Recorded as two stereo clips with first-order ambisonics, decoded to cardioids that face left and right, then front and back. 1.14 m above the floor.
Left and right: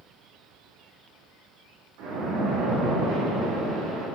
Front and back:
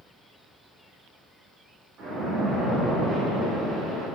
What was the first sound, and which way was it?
A splash, 115° right.